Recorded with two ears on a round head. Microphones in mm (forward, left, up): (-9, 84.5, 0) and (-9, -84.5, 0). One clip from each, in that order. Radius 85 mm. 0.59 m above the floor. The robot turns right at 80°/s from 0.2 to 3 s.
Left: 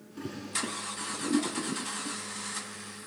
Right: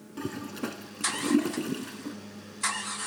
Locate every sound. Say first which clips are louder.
0.2 s a toilet flushing: left 1 dB; 20° right (ahead or behind), 1.9 m; by 2.2 s centre (ahead or behind), 1.9 m